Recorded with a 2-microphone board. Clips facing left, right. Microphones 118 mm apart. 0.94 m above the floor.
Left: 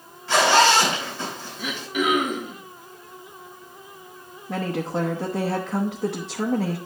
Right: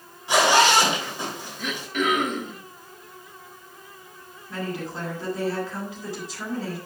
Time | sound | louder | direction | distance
0.3 | a zipper | left 1 dB | 15° right (ahead or behind) | 3 m
1.6 | throat clearing | left 1 dB | 10° left (ahead or behind) | 1.2 m
4.5 | a woman speaking | left 5 dB | 70° left (ahead or behind) | 0.9 m